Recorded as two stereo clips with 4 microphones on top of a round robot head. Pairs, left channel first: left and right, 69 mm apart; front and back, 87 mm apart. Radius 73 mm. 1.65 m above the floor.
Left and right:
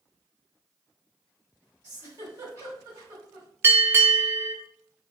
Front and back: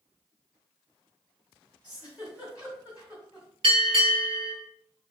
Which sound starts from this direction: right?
A giggle, at 1.8 s.